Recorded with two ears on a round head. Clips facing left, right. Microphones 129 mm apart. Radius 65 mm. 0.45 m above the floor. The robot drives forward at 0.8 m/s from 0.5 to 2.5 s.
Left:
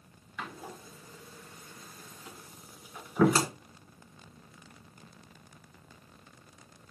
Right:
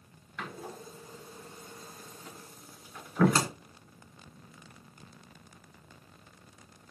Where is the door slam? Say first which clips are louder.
Right 1 dB; 5° left (ahead or behind), 2 m; by 3.5 s 10° left (ahead or behind), 0.9 m.